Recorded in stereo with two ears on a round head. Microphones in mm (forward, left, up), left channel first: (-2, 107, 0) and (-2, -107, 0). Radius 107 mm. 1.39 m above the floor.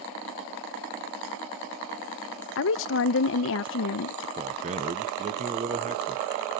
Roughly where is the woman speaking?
Left.